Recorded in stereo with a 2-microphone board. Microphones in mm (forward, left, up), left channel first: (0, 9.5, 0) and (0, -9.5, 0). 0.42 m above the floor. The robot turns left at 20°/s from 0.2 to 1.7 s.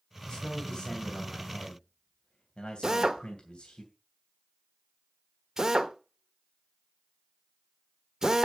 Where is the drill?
30° right (ahead or behind), 1.2 m.